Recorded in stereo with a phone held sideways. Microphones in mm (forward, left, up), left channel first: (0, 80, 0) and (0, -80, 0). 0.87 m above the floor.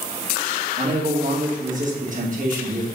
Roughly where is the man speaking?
Right.